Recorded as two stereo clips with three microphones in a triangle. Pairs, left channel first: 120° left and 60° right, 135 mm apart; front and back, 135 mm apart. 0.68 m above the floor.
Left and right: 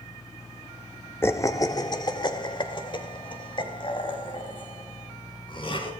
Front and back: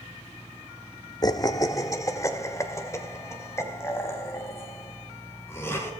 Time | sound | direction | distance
1.2 | laughter | 50° left | 0.9 m